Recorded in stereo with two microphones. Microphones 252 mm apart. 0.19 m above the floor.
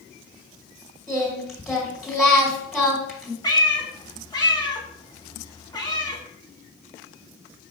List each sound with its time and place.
1.1 s singing: centre (ahead or behind), 1.5 m
3.4 s a cat meowing: 15° left (ahead or behind), 0.7 m